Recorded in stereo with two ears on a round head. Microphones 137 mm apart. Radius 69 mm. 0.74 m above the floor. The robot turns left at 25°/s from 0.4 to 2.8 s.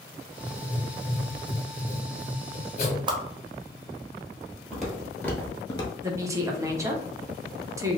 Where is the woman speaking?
20° right (ahead or behind), 0.6 m.